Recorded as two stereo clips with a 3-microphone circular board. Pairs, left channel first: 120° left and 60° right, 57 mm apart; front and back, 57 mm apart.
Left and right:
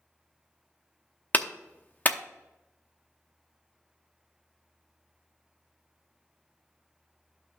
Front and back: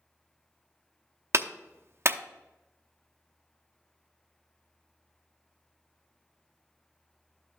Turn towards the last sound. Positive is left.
turn(degrees=170)